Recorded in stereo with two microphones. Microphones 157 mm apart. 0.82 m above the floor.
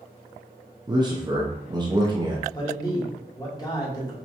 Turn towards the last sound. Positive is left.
turn(degrees=25)  # may be behind; listen again after turning